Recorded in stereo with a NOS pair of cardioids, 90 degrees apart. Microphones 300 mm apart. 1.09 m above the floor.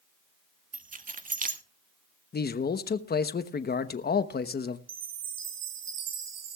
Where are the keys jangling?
25° right, 1.5 m.